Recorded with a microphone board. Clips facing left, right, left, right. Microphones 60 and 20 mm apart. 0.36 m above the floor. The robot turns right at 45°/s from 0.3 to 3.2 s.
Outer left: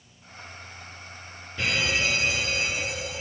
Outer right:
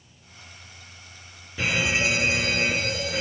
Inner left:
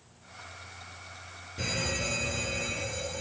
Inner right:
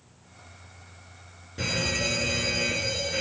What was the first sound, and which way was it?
A fire alarm, 170° right.